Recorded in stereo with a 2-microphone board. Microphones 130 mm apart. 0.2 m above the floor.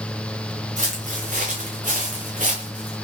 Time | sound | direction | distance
0.8 | footsteps | 70° right (ahead or behind) | 1.6 m